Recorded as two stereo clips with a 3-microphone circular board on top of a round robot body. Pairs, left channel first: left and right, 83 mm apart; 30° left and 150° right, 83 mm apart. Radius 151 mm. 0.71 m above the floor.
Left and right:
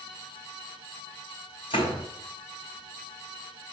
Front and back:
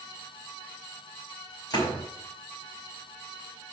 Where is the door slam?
75° left, 4 m.